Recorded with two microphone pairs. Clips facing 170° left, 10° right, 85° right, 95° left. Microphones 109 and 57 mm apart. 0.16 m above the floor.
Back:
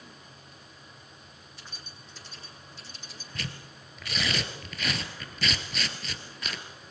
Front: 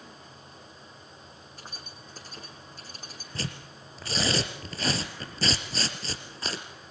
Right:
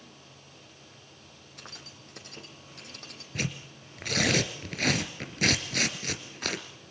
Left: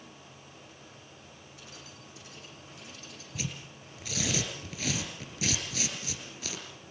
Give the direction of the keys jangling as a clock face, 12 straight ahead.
2 o'clock.